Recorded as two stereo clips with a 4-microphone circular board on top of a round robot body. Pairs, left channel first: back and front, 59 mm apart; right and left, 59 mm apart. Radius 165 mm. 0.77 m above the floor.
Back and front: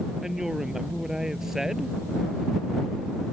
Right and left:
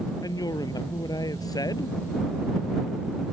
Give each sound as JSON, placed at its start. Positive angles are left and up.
{"t": 0.2, "sound": "a woman speaking", "azimuth_deg": -85}